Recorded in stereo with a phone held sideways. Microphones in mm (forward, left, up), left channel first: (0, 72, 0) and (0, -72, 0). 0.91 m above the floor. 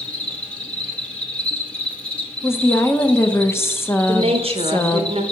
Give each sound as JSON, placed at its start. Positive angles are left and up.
{"t": 0.0, "sound": "an insect", "side_deg": 10, "distance_m": 0.8}
{"t": 2.4, "sound": "a woman speaking", "side_deg": 15, "distance_m": 0.6}
{"t": 4.1, "sound": "a woman speaking", "side_deg": -40, "distance_m": 0.8}